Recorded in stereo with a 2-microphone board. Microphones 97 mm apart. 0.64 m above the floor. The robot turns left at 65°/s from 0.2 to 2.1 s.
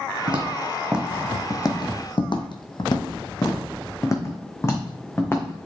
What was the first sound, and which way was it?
Footsteps, 60° right (ahead or behind).